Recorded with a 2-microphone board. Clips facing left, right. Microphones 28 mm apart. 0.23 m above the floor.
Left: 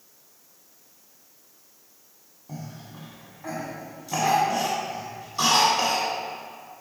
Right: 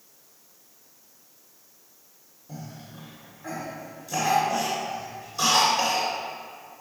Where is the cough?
40° left (ahead or behind), 1.4 m.